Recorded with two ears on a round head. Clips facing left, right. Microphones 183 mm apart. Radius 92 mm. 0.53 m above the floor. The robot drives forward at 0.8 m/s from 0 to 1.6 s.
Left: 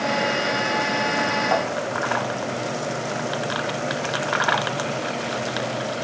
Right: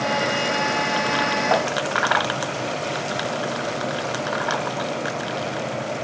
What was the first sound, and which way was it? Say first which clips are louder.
Tapping: right 2 dB; 55° right (ahead or behind).